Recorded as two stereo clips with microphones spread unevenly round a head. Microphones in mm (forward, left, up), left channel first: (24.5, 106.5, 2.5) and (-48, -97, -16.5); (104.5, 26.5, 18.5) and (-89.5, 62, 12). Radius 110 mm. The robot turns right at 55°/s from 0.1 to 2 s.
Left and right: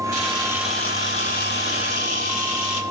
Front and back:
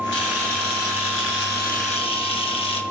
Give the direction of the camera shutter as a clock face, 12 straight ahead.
2 o'clock.